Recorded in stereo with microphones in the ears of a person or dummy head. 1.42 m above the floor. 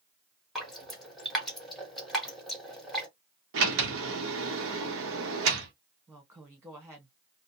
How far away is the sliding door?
About 1.0 m.